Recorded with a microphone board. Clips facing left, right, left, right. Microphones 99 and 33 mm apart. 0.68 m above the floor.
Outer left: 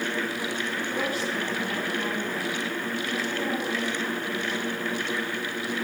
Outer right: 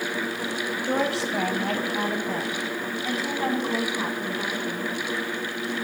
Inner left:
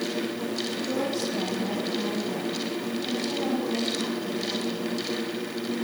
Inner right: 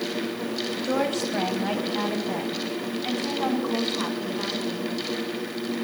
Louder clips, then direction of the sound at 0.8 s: Outer right 7 dB, inner right 4 dB; 70° right (ahead or behind).